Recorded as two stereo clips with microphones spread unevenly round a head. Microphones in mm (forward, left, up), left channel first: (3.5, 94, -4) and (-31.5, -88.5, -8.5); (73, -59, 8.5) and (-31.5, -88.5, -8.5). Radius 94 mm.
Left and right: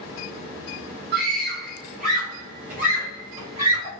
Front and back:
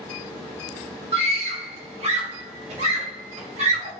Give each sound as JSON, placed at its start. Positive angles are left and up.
{"t": 1.1, "sound": "a scream", "azimuth_deg": -140, "distance_m": 3.5}